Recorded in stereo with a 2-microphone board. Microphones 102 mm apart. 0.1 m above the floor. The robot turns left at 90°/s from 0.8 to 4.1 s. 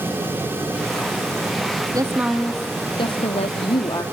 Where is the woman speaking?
140° right, 3.5 m; by 4.0 s 30° left, 3.5 m.